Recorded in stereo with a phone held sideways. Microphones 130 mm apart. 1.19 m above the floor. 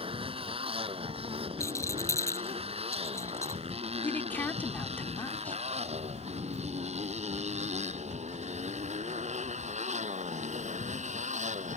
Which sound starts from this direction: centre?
A woman speaking, at 4.0 s.